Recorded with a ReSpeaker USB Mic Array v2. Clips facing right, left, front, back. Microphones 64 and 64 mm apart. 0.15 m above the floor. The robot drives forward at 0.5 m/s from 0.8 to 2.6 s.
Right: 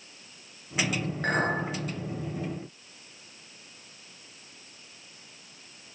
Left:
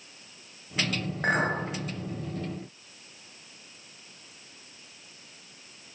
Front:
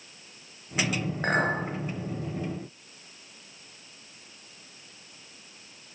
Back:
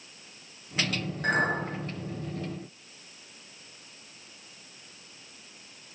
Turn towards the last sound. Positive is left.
turn(degrees=40)